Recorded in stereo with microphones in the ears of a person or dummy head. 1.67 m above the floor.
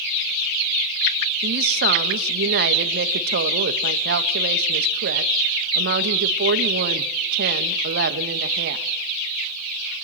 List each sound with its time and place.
1.4 s a woman speaking: 60° right (ahead or behind), 1.4 m